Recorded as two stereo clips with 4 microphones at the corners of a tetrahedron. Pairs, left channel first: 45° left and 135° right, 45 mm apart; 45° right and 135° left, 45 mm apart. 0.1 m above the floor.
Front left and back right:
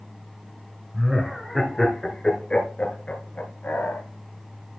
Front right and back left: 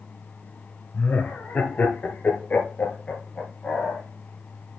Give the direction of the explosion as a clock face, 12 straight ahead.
No explosion in this recording.